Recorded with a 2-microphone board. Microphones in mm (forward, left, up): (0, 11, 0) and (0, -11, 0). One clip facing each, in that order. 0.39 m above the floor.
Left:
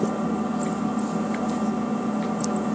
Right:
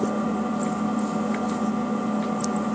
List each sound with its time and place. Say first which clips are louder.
0.0 s an engine running: even; 5° right (ahead or behind), 1.0 m